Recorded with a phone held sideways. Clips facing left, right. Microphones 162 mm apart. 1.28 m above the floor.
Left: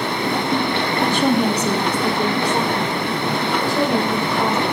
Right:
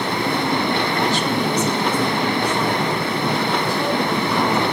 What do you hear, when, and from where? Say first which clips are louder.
1.0 s a woman speaking: left 3 dB; 50° left (ahead or behind), 1.9 m; by 4.7 s 90° left, 6.5 m